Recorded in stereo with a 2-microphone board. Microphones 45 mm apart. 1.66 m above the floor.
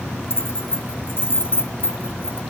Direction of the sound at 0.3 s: 55° left (ahead or behind).